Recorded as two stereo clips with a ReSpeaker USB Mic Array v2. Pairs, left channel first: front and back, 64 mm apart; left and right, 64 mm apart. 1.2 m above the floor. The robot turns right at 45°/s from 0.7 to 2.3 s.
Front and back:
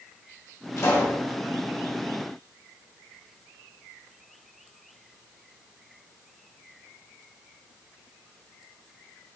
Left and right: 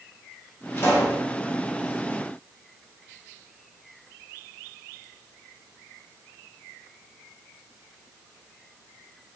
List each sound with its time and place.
0.8 s a pop: 35° left, 1.8 m; by 1.2 s 55° left, 1.8 m